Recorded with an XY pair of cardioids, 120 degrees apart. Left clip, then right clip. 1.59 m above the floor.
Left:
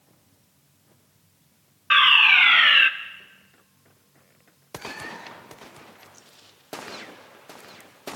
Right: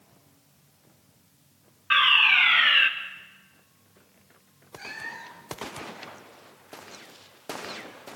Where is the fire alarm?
25° left, 1.5 m.